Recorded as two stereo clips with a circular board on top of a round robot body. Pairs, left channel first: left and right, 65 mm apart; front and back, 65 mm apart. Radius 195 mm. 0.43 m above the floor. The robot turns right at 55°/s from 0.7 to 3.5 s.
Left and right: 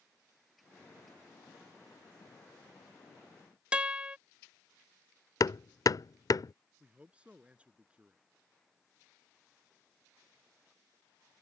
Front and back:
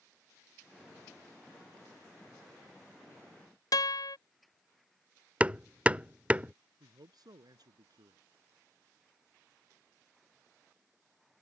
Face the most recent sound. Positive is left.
turn(degrees=-165)